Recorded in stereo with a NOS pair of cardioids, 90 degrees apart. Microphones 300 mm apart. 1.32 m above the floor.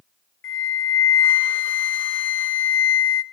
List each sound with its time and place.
0.4 s a flute: 45° left, 0.6 m